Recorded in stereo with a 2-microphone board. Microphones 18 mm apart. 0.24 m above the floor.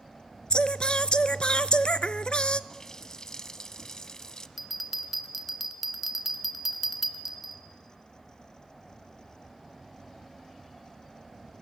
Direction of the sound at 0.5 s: 50° left (ahead or behind).